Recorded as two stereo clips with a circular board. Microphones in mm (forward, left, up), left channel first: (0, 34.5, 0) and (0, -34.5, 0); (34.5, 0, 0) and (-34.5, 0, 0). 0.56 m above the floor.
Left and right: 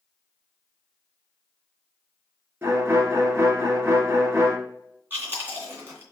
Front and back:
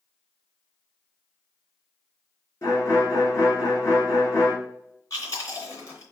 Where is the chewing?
35° right, 2.5 m.